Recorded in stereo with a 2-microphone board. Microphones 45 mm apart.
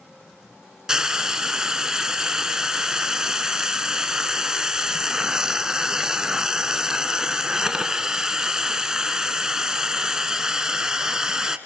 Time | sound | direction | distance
0.9 | frying | 15° right (ahead or behind) | 0.9 m